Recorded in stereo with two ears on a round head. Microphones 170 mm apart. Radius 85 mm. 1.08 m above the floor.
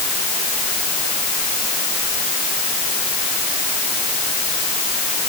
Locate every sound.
Only background noise.